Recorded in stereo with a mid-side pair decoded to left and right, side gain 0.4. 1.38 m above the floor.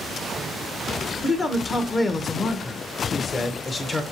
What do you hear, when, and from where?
1.2 s a man speaking: 40° left, 1.1 m